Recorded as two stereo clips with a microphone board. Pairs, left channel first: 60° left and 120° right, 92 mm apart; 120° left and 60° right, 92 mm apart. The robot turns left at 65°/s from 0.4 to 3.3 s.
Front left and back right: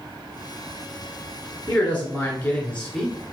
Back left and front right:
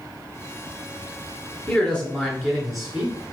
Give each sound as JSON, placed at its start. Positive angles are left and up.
{"t": 1.7, "sound": "a man speaking", "azimuth_deg": 95, "distance_m": 1.1}